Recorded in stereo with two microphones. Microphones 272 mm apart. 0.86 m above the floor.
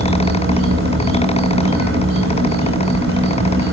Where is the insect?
50° right (ahead or behind), 2.5 m.